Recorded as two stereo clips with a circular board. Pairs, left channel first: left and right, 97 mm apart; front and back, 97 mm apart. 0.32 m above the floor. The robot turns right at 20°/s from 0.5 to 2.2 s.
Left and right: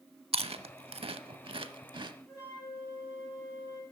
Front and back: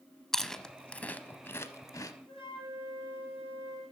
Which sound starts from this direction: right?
Chewing, at 0.3 s.